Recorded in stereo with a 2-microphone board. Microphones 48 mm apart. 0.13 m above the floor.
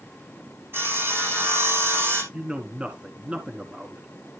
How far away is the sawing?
About 4 m.